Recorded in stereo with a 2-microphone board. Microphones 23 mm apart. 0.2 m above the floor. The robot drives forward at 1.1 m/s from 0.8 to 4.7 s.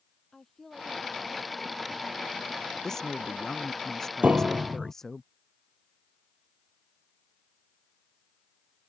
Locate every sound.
0.3 s a woman speaking: 10° left (ahead or behind)
2.8 s a woman speaking: 25° left (ahead or behind); by 5.2 s 20° left (ahead or behind)
4.2 s a piano: 65° right (ahead or behind); by 4.9 s 80° right